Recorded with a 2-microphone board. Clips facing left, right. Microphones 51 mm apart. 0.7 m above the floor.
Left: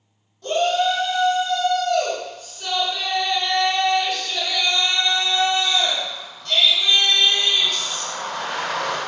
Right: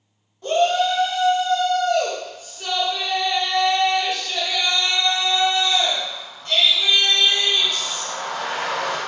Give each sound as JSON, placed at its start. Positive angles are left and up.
{"t": 0.4, "sound": "a shout", "side_deg": -25, "distance_m": 1.3}